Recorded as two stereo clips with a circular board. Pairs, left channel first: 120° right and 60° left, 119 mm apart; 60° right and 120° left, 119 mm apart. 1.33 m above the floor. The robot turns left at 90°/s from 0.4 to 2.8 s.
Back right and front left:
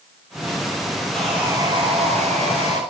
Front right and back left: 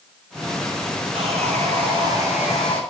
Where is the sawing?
160° left, 7 m; by 2.8 s 10° left, 7 m.